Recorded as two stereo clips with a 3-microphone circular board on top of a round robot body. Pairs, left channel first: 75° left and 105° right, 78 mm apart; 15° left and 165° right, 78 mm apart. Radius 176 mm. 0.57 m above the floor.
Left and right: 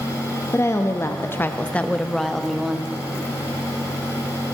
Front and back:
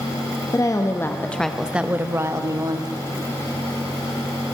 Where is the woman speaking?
30° left, 1.2 m; by 2.9 s 170° left, 1.5 m.